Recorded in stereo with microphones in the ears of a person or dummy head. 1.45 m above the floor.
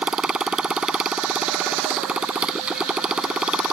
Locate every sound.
0.0 s a motorcycle: 5° right (ahead or behind)